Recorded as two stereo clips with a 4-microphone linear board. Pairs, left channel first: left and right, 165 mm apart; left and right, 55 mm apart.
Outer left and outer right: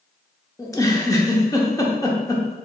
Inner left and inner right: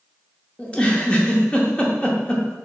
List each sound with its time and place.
0.6 s a giggle: 20° left (ahead or behind), 0.7 m